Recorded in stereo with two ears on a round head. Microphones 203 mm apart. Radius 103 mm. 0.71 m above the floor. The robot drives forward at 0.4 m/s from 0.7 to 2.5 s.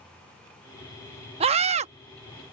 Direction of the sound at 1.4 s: 30° right (ahead or behind).